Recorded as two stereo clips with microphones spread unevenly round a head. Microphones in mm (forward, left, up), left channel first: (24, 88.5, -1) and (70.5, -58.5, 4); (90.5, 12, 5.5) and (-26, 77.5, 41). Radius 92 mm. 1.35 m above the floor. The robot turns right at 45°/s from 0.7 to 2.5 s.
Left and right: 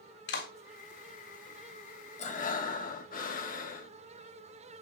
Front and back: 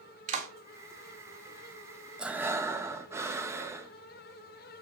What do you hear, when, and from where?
0.3 s a clap: 125° left, 3.5 m
2.2 s breathing: 65° left, 1.9 m; by 3.9 s 80° left, 1.9 m